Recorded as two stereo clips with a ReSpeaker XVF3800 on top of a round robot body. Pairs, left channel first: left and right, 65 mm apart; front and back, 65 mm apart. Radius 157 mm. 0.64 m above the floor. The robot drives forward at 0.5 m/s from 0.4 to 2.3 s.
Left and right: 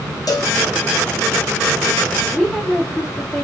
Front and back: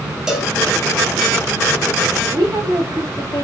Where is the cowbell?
100° left, 1.7 m; by 0.5 s 105° left, 1.7 m.